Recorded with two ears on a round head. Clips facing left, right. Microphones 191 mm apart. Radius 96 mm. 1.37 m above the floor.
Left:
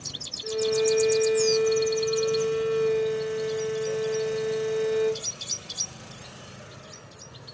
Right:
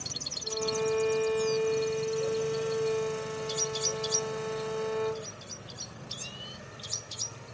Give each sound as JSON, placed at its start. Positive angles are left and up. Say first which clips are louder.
{"t": 0.4, "sound": "a violin", "louder": "left 7 dB", "side_deg": 40, "distance_m": 0.6}